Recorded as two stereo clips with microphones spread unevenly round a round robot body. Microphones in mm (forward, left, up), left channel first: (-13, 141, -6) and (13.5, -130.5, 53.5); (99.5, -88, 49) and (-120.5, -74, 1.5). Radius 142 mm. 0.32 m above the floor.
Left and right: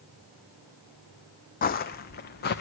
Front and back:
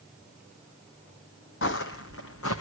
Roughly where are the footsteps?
Ahead left.